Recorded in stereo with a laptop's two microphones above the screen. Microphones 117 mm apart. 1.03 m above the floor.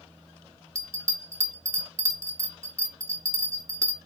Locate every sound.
0.8 s a bell: 25° right (ahead or behind), 0.7 m